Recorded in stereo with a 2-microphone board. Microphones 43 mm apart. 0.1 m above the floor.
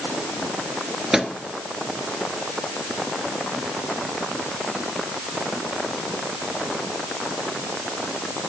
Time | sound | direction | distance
1.1 | a microwave | 10° right (ahead or behind) | 1.1 m